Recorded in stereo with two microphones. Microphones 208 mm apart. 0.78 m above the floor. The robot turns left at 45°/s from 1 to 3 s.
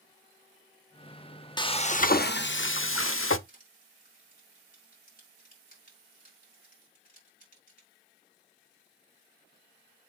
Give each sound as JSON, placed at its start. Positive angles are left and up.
{"t": 1.6, "sound": "frying", "azimuth_deg": 160, "distance_m": 0.6}
{"t": 3.5, "sound": "crushing", "side_deg": 40, "distance_m": 4.5}